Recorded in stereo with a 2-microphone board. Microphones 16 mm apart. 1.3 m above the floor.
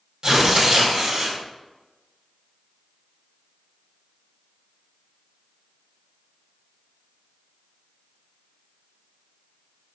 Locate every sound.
0.2 s tearing paper: 55° right (ahead or behind), 1.6 m